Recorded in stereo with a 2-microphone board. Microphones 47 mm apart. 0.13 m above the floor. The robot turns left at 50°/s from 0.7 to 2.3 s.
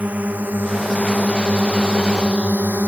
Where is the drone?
35° right (ahead or behind); by 2.9 s 45° right (ahead or behind).